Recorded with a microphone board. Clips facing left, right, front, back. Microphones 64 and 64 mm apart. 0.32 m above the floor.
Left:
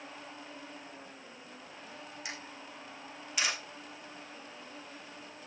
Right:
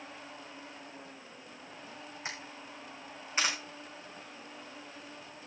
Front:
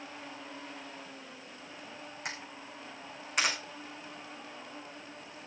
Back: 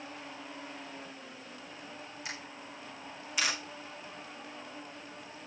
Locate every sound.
2.2 s a camera shutter: 35° right, 6.5 m